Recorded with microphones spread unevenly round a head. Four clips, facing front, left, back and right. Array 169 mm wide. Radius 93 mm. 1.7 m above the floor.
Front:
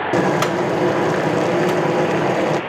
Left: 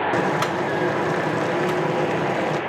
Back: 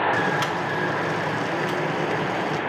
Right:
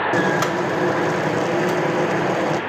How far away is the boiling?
About 0.9 m.